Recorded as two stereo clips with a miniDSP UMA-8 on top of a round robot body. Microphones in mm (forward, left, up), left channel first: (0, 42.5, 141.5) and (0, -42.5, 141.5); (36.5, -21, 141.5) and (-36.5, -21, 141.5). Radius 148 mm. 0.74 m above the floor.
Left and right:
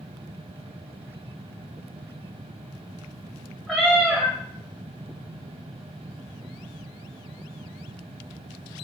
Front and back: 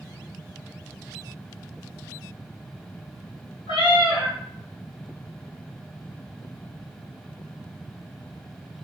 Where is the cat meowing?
Straight ahead, 1.0 m.